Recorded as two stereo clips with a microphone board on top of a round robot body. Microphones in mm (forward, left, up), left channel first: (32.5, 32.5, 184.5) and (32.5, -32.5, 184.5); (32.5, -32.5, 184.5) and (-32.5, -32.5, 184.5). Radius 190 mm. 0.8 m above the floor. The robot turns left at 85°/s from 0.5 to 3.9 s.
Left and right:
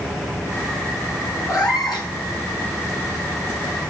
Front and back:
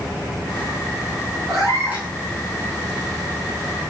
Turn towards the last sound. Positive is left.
turn(degrees=-60)